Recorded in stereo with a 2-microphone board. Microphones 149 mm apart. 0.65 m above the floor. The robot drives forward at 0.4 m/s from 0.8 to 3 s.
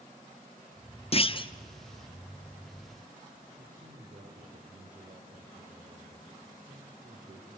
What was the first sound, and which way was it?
A clunk, 40° left (ahead or behind).